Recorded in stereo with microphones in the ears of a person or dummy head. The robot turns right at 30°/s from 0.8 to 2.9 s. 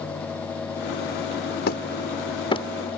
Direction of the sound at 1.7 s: 60° left (ahead or behind).